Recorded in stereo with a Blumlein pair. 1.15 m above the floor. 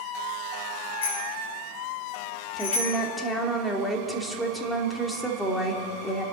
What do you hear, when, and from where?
1.0 s a bicycle bell: 60° left, 6.5 m; by 3.0 s 65° left, 8.5 m
2.6 s a woman speaking: straight ahead, 2.5 m